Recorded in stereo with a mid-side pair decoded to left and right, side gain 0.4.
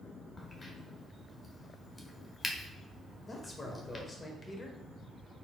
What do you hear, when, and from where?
0.4 s a crack: 30° left, 0.9 m
3.2 s a man speaking: 30° left, 1.1 m